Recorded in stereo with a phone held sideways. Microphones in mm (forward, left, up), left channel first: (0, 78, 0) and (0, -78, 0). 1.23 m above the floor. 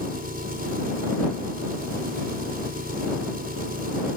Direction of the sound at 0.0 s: 65° right (ahead or behind).